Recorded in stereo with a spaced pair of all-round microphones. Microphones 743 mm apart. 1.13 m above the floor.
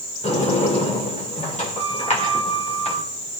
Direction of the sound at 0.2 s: 10° left (ahead or behind).